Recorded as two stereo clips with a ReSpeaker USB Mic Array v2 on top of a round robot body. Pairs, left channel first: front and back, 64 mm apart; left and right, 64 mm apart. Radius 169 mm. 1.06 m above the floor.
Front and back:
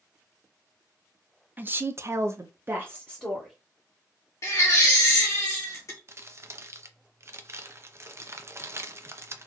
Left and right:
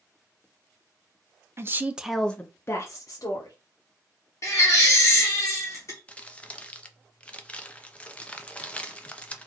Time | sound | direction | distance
1.6 | a woman speaking | 125° right | 0.7 m
4.4 | a baby crying | 45° left | 0.6 m
6.1 | crumpling | 155° left | 0.7 m